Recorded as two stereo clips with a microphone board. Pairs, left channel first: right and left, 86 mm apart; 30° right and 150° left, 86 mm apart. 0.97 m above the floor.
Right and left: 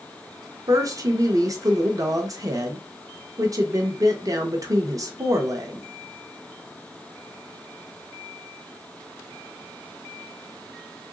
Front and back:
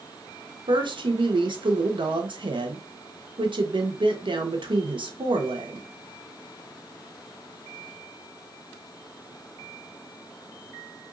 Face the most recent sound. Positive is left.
turn(degrees=135)